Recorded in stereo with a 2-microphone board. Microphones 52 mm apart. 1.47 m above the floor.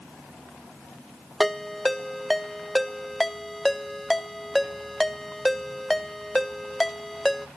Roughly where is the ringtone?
Centre.